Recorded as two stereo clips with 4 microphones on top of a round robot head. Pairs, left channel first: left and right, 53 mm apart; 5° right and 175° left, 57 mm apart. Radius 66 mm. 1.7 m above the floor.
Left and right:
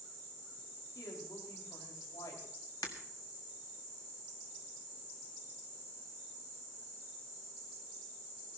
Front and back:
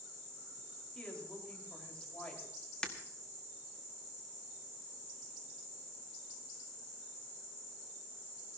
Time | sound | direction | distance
0.9 | a woman speaking | 70° left | 5 m
2.8 | breaking glass | 65° left | 1.4 m